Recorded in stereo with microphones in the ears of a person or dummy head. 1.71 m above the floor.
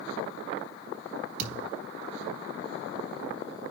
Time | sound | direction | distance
1.4 | a thud | 70° right (ahead or behind) | 4.5 m